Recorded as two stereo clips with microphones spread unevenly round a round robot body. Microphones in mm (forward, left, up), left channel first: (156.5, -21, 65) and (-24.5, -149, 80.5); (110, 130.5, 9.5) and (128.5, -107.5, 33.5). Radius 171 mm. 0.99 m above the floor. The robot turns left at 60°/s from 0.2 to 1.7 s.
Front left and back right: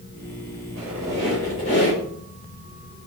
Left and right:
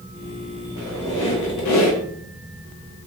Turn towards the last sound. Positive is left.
turn(degrees=100)